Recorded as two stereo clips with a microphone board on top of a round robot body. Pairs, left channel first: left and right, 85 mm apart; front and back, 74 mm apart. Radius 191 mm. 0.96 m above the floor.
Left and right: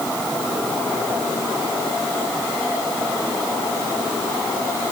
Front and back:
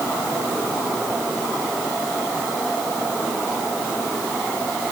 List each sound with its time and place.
Only background noise.